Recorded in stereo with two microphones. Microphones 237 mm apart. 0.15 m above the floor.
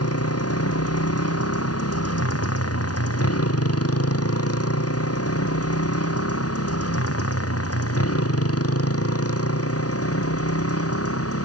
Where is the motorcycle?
85° left; by 11.5 s 75° left (ahead or behind).